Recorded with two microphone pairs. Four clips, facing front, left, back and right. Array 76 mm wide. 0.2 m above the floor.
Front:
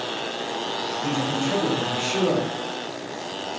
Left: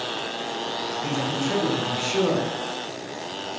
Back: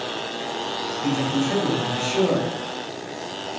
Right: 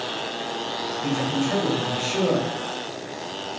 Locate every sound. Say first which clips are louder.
1.0 s a man speaking: right 3 dB, back 3 dB; 20° left, 1.5 m